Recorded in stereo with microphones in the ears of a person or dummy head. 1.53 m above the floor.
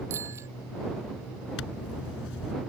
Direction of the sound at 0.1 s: 15° right (ahead or behind).